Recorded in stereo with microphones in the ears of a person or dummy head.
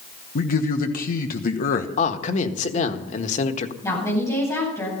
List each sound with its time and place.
0.3 s a man speaking: 50° left (ahead or behind), 1.3 m
2.0 s a man speaking: 45° left (ahead or behind), 1.5 m
3.8 s a woman speaking: 15° left (ahead or behind), 9.5 m